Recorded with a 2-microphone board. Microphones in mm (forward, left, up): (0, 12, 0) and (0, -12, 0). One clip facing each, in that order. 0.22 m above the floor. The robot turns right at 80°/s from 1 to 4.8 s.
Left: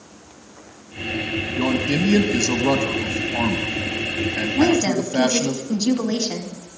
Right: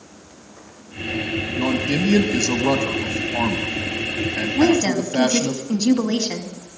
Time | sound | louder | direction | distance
1.6 | a man speaking | left 1 dB | 20° left (ahead or behind) | 1.3 m
4.5 | a woman speaking | right 1 dB | 40° right (ahead or behind) | 1.5 m